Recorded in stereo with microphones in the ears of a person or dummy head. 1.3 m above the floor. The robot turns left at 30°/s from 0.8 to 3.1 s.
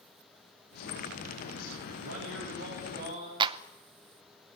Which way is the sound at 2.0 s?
110° right.